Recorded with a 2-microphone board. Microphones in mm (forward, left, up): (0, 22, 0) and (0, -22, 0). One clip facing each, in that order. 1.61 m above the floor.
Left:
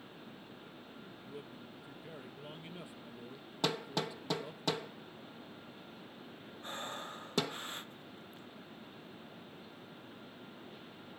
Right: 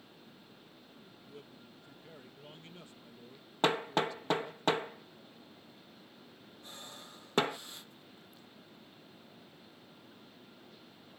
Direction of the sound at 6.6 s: 45° left (ahead or behind).